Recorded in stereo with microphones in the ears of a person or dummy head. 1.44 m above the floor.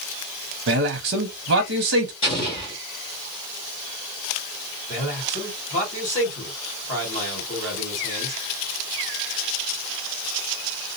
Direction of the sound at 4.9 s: 35° left (ahead or behind).